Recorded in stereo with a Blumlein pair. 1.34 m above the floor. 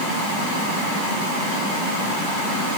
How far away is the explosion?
No explosion in this recording.